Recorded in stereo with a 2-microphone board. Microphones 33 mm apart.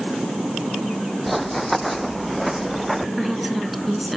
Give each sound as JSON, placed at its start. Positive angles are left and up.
{"t": 1.3, "sound": "running footsteps", "side_deg": -5}
{"t": 3.2, "sound": "a woman speaking", "side_deg": 0}